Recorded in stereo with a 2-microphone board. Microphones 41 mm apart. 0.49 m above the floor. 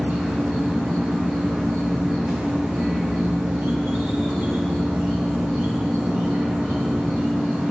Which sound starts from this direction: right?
An insect, at 0.0 s.